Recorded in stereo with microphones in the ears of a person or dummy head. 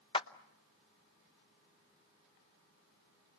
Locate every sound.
0.1 s a clap: 25° left (ahead or behind), 0.8 m